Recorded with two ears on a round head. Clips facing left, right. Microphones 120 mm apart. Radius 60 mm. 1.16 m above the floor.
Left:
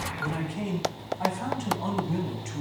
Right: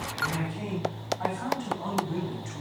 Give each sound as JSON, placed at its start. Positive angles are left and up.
{"t": 0.2, "sound": "a man speaking", "side_deg": 30, "distance_m": 8.0}